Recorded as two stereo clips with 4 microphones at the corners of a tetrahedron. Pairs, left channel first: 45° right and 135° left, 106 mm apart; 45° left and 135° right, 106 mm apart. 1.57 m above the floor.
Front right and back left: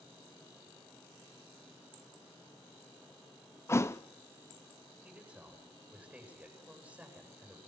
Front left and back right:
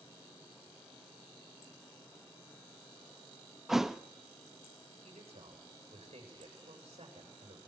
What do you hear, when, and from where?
3.7 s a thud: 55° right, 0.9 m
5.0 s a man speaking: 150° right, 8.5 m